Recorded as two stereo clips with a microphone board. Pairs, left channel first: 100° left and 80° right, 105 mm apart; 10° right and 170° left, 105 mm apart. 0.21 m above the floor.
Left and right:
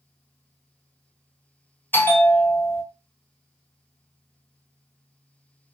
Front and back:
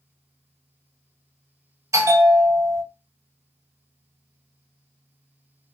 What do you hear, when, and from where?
1.9 s a bell: 145° left, 0.5 m